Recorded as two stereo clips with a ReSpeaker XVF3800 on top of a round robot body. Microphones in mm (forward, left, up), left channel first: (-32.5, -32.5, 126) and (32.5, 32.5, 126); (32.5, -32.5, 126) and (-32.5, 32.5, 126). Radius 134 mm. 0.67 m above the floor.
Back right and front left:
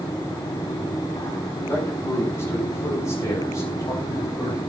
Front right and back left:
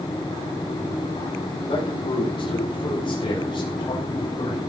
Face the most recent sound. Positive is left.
turn(degrees=-90)